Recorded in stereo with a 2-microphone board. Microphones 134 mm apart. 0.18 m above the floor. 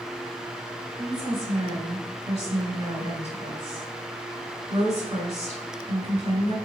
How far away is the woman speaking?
About 1.8 m.